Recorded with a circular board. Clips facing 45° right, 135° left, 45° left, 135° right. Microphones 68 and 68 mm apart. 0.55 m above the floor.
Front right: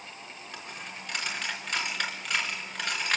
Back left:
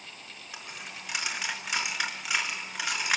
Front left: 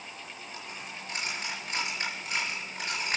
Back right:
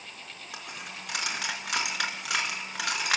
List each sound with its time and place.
0.5 s a dropped coin: 145° right, 4 m